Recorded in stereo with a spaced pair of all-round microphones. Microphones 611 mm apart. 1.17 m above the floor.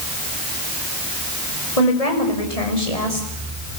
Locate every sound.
1.8 s a woman speaking: 75° left (ahead or behind), 7 m